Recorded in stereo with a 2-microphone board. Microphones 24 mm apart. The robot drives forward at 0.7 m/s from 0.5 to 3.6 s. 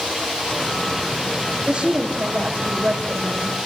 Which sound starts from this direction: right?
A woman speaking, at 1.7 s.